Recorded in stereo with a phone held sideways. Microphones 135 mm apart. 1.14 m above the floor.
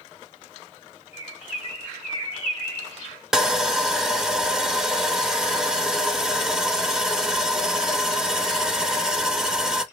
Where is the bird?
50° left (ahead or behind), 2 m.